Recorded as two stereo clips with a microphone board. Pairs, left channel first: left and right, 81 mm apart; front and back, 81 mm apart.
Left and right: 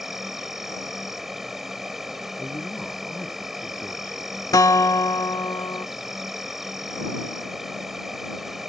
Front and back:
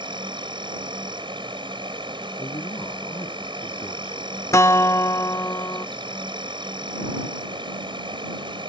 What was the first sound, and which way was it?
An insect, 175° right.